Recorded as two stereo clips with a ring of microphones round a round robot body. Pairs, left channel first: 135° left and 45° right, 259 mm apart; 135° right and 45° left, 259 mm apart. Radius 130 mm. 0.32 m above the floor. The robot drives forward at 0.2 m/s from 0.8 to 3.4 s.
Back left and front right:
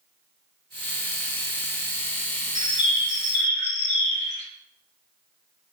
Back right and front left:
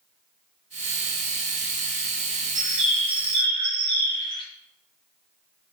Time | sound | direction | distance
2.5 | a bird | 105° left | 0.9 m